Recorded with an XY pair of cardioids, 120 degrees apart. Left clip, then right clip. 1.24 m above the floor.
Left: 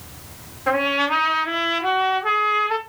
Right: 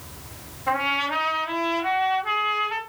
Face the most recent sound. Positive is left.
turn(degrees=70)